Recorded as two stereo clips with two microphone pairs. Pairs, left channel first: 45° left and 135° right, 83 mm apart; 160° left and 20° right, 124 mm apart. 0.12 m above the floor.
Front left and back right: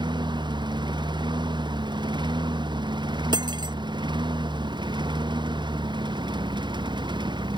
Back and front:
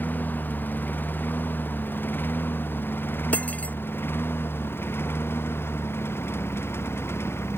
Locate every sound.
0.0 s a lawn mower: 125° right; by 7.6 s 130° right
3.3 s cutlery clinking: 120° right